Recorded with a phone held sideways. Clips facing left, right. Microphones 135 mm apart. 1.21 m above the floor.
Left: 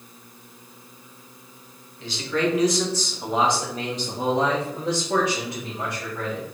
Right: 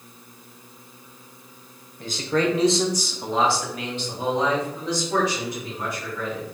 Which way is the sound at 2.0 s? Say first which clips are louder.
Right 2 dB; 50° right (ahead or behind).